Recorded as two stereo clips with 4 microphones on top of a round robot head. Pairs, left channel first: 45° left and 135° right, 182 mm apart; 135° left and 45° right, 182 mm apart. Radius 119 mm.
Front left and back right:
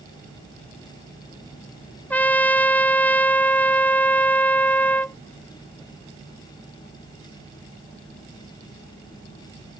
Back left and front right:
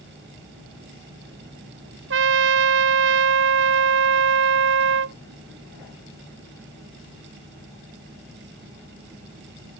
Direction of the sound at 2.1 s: 35° right.